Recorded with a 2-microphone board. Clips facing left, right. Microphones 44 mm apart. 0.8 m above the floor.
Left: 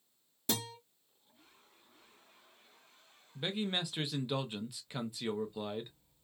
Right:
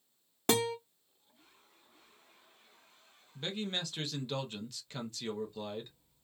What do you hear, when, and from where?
0.5 s a guitar: 60° right (ahead or behind), 0.6 m
3.4 s a man speaking: 15° left (ahead or behind), 0.6 m